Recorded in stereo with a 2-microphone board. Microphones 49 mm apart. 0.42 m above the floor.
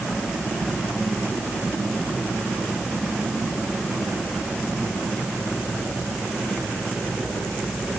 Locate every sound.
Only background noise.